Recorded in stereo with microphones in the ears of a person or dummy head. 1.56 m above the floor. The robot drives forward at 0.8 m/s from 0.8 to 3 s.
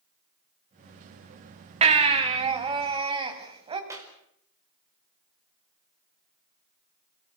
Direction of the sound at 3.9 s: 15° right (ahead or behind).